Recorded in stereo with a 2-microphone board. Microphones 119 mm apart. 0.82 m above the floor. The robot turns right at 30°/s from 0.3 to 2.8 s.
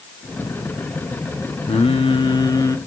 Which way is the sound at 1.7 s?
120° left.